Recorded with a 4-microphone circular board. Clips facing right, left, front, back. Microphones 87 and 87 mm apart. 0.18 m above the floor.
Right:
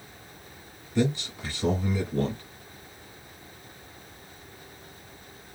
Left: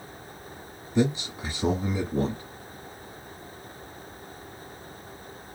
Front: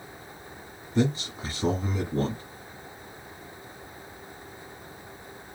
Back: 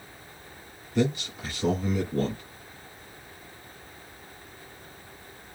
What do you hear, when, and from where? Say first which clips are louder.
0.9 s a man speaking: left 2 dB, even; 30° left, 1.7 m